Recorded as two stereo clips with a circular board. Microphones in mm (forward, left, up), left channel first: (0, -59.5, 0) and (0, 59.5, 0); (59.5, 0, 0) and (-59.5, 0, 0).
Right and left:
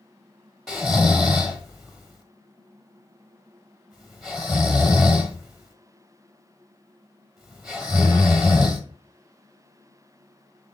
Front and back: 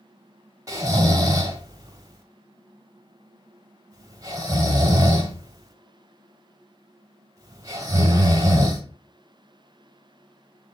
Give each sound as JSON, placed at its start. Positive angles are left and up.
{"t": 0.7, "sound": "snoring", "azimuth_deg": 180, "distance_m": 1.1}